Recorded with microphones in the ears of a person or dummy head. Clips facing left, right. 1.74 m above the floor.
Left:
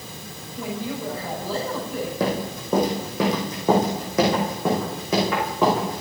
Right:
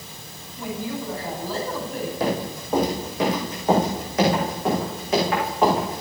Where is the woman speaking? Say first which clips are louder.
Even; 70° left (ahead or behind), 7 m.